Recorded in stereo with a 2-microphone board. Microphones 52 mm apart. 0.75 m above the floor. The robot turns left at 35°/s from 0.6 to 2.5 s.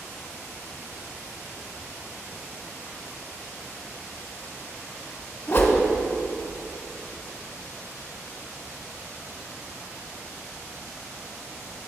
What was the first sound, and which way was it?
A whoosh, 45° left (ahead or behind).